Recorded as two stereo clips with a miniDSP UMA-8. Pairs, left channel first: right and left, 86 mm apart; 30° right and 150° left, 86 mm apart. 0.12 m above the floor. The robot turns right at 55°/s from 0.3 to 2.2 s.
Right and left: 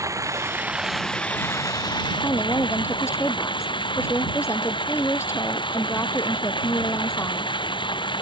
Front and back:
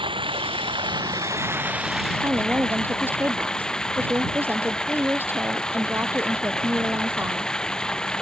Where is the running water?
145° left; by 8.2 s 110° right.